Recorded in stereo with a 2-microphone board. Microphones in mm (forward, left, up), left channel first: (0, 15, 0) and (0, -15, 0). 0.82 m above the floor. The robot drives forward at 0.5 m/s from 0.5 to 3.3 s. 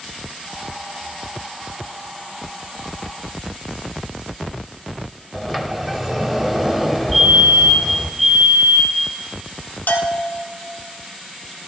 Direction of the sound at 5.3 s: 5° right (ahead or behind).